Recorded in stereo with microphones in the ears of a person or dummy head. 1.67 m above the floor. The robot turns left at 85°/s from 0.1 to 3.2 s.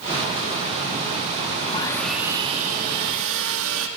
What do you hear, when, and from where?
1.6 s sawing: 40° left, 1.8 m; by 3.9 s 95° right, 1.8 m